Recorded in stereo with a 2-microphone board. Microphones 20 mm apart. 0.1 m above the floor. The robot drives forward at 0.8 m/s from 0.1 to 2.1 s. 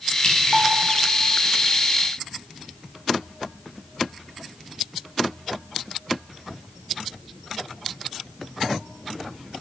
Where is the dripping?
40° left (ahead or behind), 8.5 m.